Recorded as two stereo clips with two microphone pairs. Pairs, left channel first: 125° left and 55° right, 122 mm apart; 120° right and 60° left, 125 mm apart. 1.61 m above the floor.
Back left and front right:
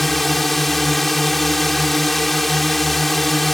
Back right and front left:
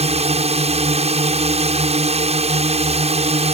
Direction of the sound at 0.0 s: 35° left.